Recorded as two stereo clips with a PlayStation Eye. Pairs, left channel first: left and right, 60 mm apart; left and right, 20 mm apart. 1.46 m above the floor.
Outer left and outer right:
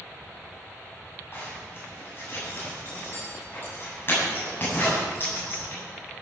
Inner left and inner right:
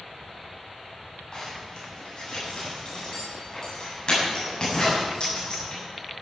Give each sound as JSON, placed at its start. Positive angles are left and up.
{"t": 1.3, "sound": "a zipper", "side_deg": 35, "distance_m": 7.0}